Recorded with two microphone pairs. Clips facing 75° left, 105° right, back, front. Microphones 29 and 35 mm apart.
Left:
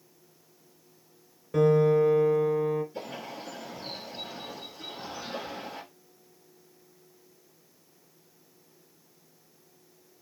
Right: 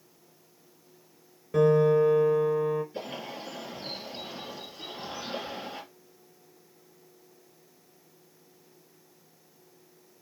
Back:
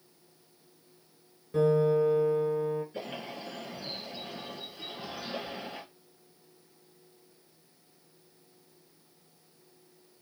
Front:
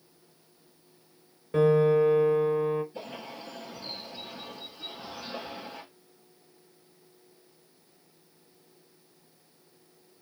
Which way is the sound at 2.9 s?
170° right.